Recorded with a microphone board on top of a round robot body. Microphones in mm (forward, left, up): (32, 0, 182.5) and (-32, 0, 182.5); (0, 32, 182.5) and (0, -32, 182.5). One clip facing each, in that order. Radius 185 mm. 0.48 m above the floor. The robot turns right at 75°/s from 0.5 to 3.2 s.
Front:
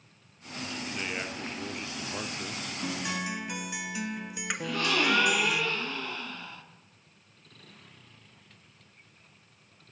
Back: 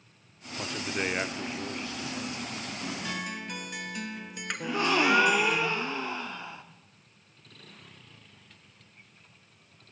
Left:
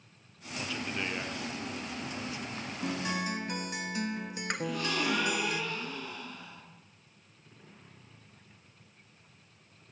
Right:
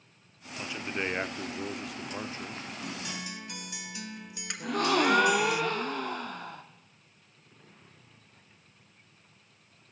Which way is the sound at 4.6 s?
115° right.